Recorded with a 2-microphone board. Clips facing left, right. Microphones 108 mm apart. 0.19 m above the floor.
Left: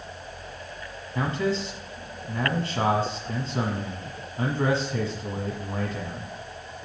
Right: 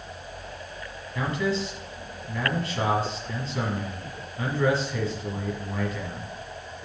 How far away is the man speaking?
About 1.5 m.